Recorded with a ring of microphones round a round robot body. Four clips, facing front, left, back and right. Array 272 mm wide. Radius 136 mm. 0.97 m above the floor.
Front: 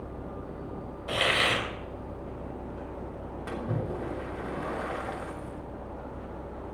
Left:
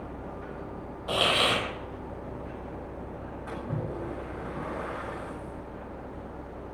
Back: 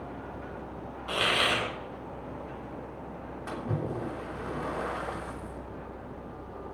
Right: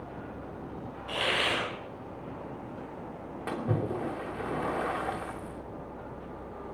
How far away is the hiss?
About 3 m.